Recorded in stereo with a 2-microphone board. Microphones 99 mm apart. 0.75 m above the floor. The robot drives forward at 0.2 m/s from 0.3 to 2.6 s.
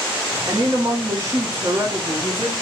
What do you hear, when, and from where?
0.5 s a woman speaking: 40° right (ahead or behind), 1.3 m; by 2.5 s 30° right (ahead or behind), 1.6 m